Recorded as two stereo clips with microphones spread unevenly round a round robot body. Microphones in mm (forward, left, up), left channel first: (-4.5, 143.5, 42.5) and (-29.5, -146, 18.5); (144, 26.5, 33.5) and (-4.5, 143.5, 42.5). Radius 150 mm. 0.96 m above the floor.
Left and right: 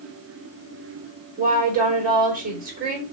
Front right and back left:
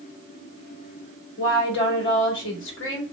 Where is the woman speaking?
30° right, 3.5 m.